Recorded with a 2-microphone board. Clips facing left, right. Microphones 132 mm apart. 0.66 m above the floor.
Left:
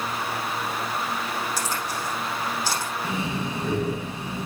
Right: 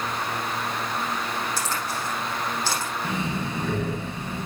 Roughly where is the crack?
Centre.